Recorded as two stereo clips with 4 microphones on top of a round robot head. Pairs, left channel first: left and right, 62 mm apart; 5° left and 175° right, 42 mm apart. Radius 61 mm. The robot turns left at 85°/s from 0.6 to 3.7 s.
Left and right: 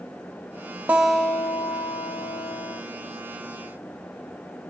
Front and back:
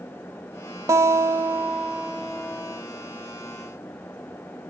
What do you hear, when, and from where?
0.9 s a guitar: 160° right, 0.7 m; by 2.8 s 35° left, 0.7 m